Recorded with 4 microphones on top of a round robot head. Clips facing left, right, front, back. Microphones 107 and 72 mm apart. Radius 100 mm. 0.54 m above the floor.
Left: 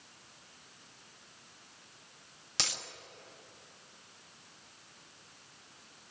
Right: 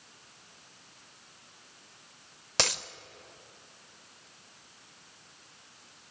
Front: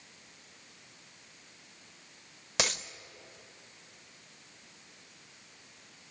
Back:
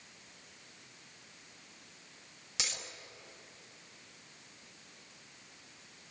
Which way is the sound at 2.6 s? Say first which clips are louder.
Right 9 dB, front 10 dB; 45° right.